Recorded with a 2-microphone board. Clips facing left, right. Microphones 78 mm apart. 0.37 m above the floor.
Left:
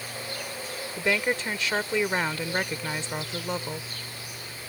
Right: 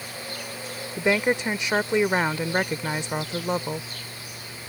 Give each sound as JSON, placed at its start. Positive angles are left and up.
{"t": 1.0, "sound": "a woman speaking", "side_deg": -20}